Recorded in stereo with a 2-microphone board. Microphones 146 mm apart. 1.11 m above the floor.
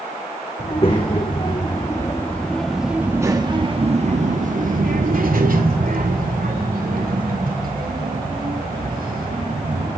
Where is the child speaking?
45° left (ahead or behind), 2.5 m; by 9.9 s 85° right, 6.5 m.